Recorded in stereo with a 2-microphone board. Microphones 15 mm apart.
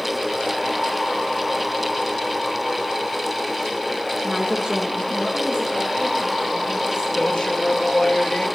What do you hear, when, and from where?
4.2 s a woman speaking: 60° right (ahead or behind), 1.4 m; by 7.0 s 90° right, 3 m
7.2 s a man speaking: 85° left, 1.7 m